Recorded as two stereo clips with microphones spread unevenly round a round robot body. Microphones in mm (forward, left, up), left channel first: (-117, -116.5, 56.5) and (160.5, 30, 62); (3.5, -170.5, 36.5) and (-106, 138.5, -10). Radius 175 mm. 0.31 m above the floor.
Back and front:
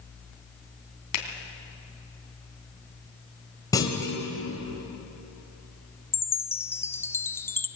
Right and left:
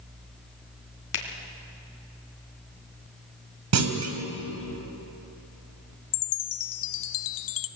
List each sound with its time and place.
1.1 s a finger snap: 115° right, 3 m
3.7 s a clunk: 130° left, 2.0 m
6.1 s a chime: 70° right, 0.9 m